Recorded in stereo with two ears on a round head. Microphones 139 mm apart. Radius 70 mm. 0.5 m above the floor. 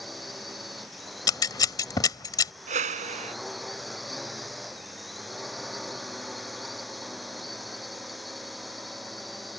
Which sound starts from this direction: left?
Scissors, at 1.3 s.